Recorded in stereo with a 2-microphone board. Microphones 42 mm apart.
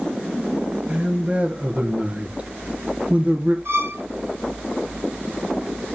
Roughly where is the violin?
Right.